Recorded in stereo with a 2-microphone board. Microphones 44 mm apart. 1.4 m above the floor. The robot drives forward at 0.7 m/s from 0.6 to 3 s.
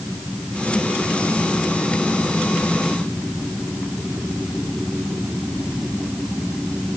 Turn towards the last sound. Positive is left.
No sound to turn to.